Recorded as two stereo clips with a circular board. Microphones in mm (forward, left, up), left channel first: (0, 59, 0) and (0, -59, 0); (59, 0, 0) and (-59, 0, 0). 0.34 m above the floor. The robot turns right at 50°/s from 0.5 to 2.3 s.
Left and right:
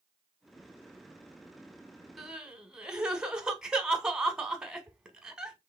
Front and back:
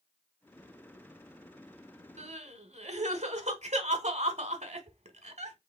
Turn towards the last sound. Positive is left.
turn(degrees=-175)